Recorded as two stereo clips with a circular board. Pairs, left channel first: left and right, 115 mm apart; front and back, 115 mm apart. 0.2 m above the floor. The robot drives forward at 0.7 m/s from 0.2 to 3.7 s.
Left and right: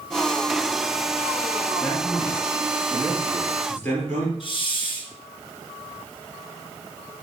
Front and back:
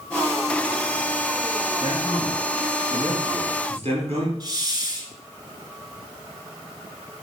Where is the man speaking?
145° left, 2.5 m; by 4.3 s 160° left, 3.5 m.